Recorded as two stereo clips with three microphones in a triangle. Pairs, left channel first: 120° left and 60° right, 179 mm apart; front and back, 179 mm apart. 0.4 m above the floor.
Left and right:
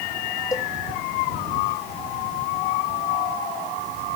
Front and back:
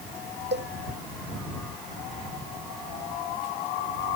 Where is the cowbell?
170° right.